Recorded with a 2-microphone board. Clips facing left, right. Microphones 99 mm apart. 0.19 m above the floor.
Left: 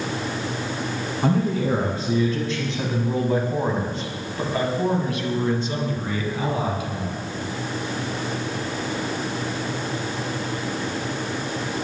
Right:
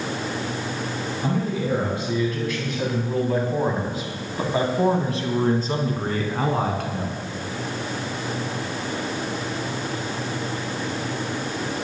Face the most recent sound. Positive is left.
turn(degrees=-55)  # may be behind; listen again after turning